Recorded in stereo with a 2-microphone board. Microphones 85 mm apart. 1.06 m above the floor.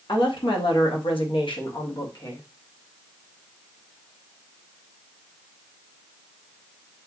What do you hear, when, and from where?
0.1 s a woman speaking: 65° left (ahead or behind), 1.5 m; by 2.4 s 45° left (ahead or behind), 1.4 m